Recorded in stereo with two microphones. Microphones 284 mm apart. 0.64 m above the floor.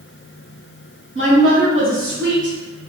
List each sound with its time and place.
1.1 s a woman speaking: 45° right (ahead or behind), 1.3 m; by 2.8 s 40° right (ahead or behind), 1.7 m